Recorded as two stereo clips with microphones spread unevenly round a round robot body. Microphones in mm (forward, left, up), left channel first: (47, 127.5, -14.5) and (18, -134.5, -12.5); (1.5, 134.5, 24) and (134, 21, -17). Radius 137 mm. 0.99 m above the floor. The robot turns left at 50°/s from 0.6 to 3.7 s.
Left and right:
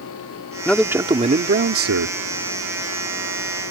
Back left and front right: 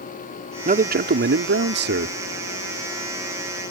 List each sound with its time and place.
0.7 s a man speaking: straight ahead; by 2.2 s 75° right